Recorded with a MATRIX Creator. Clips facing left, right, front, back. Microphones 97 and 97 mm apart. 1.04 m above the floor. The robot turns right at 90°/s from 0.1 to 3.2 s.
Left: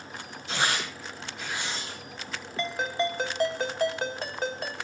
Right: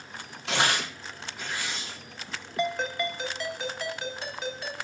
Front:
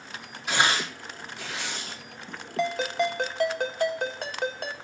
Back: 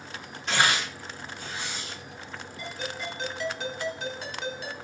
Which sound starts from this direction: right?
Tearing paper, at 0.5 s.